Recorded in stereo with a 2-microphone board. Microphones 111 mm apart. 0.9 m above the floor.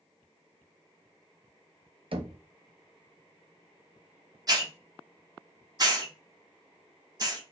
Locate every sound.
2.1 s knocking: 55° right (ahead or behind), 0.7 m
4.5 s a hiss: 35° right (ahead or behind), 1.0 m